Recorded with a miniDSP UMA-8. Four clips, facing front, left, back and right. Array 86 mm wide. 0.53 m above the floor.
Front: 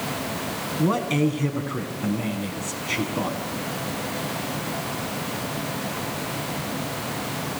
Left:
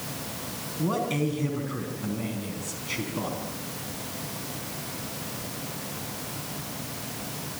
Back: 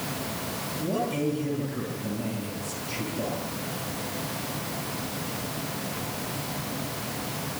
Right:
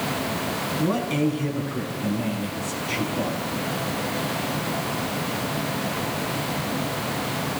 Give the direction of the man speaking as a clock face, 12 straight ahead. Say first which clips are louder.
Right 3 dB, front 6 dB; 12 o'clock.